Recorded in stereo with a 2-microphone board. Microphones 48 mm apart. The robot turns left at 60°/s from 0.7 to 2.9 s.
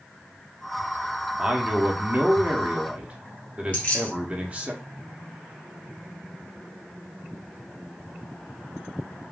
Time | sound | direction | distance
1.4 | a man speaking | 20° right | 1.0 m
3.7 | keys jangling | 25° left (ahead or behind) | 1.7 m